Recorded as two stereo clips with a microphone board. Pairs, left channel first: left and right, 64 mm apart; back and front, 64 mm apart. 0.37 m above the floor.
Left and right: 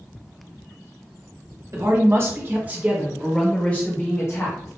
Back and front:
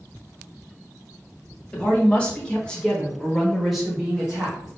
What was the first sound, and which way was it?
A woman speaking, 115° right.